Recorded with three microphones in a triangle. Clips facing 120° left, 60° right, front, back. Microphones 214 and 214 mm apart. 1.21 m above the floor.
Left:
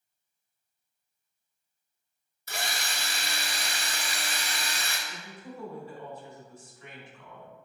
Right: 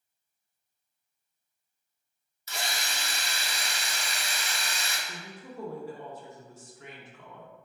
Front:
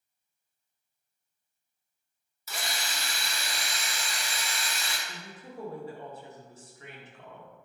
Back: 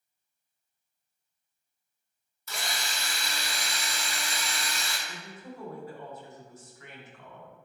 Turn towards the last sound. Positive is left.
turn(degrees=-60)